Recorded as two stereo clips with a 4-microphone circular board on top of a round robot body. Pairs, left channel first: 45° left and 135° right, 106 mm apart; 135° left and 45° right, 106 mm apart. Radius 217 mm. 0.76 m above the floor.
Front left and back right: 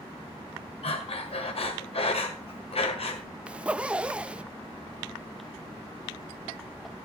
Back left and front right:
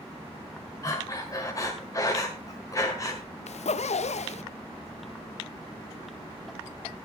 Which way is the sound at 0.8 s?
75° left.